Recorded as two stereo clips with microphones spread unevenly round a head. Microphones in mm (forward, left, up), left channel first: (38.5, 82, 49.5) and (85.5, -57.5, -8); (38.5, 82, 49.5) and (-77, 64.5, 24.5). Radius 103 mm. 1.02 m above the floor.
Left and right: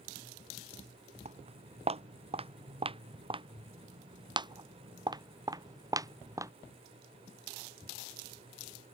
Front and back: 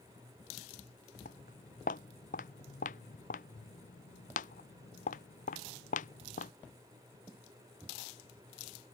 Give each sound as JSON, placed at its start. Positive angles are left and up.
{"t": 1.2, "sound": "footsteps", "azimuth_deg": -25}